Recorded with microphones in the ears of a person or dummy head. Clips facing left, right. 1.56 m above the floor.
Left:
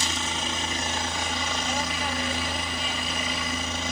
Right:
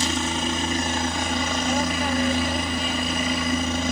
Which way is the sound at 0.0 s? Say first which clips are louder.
Right 7 dB; 40° right (ahead or behind).